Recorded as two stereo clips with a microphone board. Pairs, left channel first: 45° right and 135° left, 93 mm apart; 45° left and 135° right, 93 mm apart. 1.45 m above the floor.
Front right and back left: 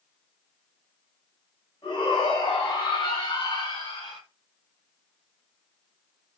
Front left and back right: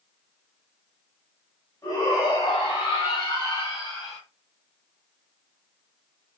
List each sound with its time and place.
1.8 s a shout: 5° right, 9.5 m; by 4.2 s straight ahead, 8.5 m